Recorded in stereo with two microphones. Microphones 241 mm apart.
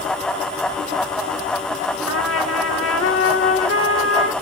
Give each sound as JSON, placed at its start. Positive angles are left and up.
{"t": 2.1, "sound": "a trumpet", "side_deg": 70, "distance_m": 1.2}